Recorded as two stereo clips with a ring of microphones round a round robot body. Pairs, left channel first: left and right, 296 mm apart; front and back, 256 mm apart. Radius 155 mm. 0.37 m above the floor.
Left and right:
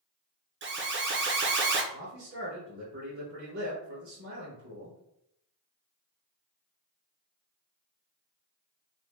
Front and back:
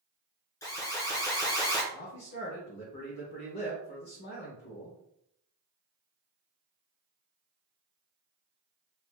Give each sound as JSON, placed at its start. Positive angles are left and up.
{"t": 0.6, "sound": "an alarm", "azimuth_deg": -70, "distance_m": 0.6}
{"t": 1.9, "sound": "a man speaking", "azimuth_deg": -50, "distance_m": 1.1}